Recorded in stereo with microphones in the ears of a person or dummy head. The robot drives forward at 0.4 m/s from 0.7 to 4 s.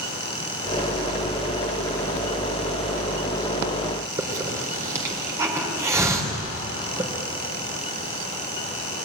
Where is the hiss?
20° right (ahead or behind), 3.5 m.